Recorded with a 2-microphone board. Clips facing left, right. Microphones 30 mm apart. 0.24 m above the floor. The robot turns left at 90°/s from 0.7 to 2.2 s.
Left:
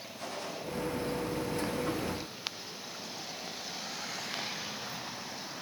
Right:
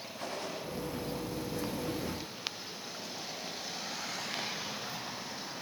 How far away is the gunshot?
About 6 m.